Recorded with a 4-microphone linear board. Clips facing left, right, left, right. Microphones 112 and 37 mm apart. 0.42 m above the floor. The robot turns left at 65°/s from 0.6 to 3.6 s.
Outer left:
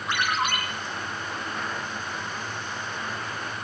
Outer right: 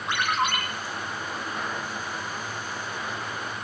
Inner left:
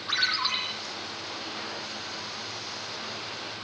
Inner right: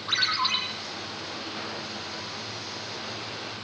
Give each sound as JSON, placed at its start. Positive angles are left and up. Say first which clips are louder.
{"t": 0.1, "sound": "a ringtone", "louder": "outer right 1 dB, inner right 2 dB", "side_deg": -25, "distance_m": 8.5}